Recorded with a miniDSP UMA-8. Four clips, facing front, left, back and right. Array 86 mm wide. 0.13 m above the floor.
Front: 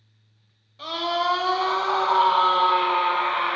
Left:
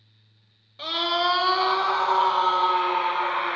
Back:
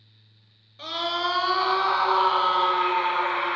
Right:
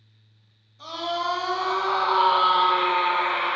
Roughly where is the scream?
Left.